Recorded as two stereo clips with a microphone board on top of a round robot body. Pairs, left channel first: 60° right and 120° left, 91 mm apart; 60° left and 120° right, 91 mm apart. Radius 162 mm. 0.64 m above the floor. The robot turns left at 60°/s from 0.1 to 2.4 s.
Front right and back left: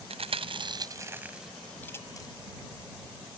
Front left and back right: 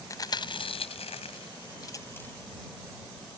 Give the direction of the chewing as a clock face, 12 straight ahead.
8 o'clock.